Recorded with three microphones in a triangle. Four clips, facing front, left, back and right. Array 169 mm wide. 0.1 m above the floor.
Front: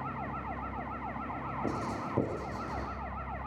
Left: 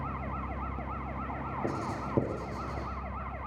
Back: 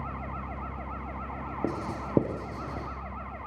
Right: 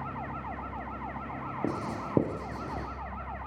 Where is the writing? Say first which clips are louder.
Right 2 dB, back 4 dB; 155° right, 5.5 m.